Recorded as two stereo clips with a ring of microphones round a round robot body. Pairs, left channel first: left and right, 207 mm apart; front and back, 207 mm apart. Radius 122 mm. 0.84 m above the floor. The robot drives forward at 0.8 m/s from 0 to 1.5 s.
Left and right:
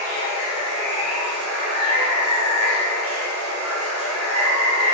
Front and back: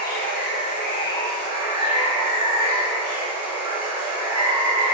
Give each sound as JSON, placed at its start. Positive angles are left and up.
{"t": 0.0, "sound": "running water", "azimuth_deg": -35, "distance_m": 1.3}